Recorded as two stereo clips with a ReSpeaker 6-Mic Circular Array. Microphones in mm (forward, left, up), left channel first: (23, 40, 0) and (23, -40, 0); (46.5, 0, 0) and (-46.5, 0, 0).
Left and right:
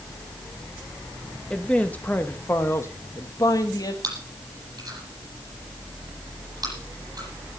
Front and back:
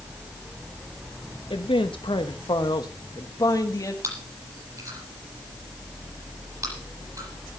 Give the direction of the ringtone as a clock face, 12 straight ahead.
I don't hear a ringtone.